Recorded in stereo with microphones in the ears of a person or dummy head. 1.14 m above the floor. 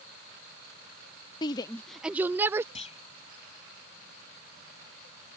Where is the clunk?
35° left (ahead or behind).